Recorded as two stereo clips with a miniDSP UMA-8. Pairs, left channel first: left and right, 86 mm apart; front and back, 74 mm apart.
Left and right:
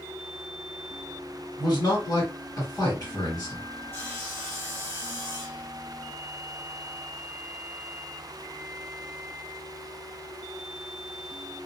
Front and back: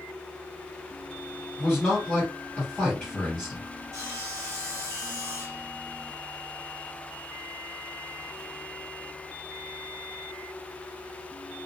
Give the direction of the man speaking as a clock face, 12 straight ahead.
9 o'clock.